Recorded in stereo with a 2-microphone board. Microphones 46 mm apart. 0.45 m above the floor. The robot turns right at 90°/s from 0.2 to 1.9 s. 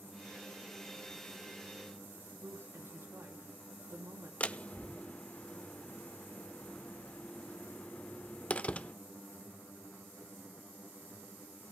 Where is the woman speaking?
75° right (ahead or behind), 3.5 m.